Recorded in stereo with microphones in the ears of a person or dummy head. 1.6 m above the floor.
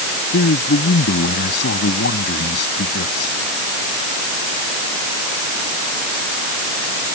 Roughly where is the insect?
I don't hear an insect.